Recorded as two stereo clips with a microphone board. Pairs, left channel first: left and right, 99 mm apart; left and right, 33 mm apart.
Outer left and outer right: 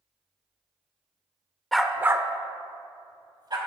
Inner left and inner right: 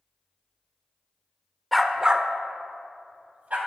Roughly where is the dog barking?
Centre.